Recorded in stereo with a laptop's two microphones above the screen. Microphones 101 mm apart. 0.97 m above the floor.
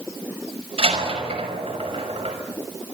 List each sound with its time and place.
0.8 s a door slam: 80° right, 5 m